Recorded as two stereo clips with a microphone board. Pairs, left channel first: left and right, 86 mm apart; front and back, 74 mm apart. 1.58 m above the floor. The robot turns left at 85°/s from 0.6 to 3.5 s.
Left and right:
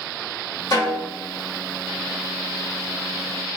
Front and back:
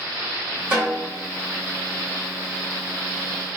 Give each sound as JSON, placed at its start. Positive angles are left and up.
{"t": 0.7, "sound": "a snare drum", "azimuth_deg": 115, "distance_m": 1.8}